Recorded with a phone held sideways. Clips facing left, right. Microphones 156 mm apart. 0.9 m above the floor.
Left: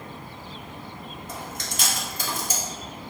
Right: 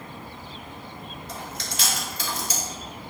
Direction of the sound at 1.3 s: 50° left (ahead or behind).